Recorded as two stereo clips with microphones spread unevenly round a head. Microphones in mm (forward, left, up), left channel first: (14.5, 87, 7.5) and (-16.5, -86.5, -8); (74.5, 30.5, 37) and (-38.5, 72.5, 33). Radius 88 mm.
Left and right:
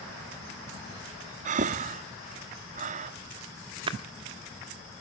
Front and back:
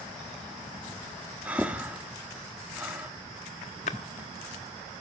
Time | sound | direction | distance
1.4 | breathing | 120° right | 1.0 m
3.9 | a splash | 40° right | 1.2 m